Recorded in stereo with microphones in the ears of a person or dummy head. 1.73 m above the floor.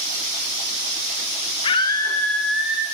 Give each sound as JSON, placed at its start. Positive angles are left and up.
{"t": 1.6, "sound": "a scream", "side_deg": 30, "distance_m": 1.2}